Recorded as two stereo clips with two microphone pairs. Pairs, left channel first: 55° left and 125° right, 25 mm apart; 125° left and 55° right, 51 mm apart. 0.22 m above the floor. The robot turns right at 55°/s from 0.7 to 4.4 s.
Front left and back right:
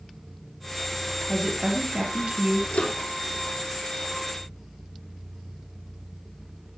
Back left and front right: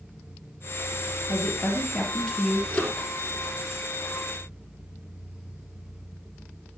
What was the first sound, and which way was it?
A woman speaking, 145° left.